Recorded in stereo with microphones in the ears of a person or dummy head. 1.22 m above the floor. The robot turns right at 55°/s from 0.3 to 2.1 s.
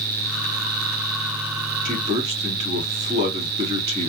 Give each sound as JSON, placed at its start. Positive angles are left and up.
{"t": 1.9, "sound": "a man speaking", "side_deg": -40, "distance_m": 3.0}